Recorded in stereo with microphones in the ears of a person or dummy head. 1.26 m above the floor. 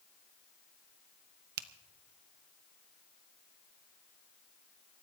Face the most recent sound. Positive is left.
turn(degrees=-55)  # may be behind; listen again after turning